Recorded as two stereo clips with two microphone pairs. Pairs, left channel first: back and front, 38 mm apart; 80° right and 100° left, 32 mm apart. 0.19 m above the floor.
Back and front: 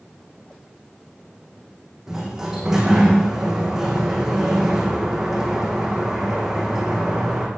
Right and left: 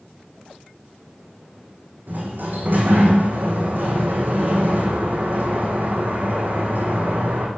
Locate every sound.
2.1 s a sliding door: 80° left, 4.5 m